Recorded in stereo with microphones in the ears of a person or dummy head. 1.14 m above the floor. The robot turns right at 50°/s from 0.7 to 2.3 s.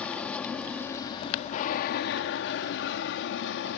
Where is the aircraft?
10° left; by 3.8 s 90° left.